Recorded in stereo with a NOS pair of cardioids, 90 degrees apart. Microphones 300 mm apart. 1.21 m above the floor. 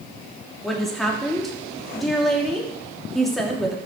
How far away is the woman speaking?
About 3 m.